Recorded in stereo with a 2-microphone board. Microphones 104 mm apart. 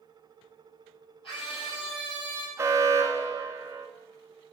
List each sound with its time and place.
1.2 s a scream: 60° left (ahead or behind), 5 m; by 2.5 s 50° left (ahead or behind), 3.5 m
2.6 s an alarm: 30° right (ahead or behind), 1.1 m